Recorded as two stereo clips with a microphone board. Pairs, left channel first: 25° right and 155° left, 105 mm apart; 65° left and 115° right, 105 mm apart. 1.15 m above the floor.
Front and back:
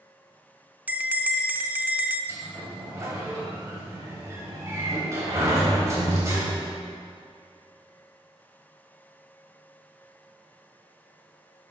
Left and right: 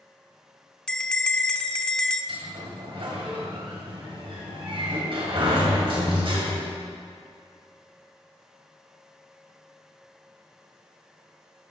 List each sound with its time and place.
0.9 s a bell: 135° left, 0.7 m
2.3 s a sliding door: 145° right, 3 m